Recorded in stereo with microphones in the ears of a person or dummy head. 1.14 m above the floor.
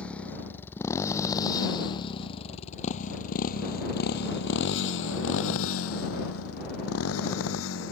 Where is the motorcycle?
10° left (ahead or behind); by 7.9 s 70° left (ahead or behind).